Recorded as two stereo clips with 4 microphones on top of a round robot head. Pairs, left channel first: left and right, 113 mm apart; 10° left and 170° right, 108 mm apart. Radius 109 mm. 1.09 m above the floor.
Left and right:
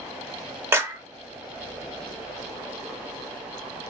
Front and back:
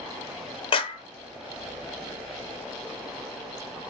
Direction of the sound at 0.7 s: 20° right.